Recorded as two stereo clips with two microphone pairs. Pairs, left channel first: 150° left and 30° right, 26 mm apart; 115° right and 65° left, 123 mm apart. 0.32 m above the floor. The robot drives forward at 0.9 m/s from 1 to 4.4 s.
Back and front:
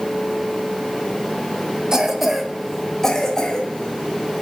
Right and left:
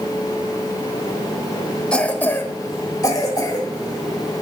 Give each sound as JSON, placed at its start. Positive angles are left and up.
{"t": 1.9, "sound": "a cough", "azimuth_deg": -45, "distance_m": 1.2}